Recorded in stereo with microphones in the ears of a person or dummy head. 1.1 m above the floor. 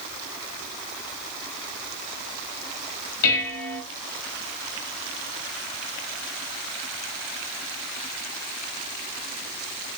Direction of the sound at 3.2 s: 75° left (ahead or behind).